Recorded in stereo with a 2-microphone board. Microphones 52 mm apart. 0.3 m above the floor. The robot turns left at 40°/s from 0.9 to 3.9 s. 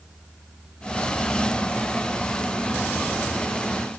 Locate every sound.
Only background noise.